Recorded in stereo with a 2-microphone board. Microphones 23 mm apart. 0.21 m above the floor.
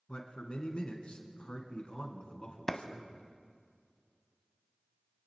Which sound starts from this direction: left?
A man speaking, at 0.1 s.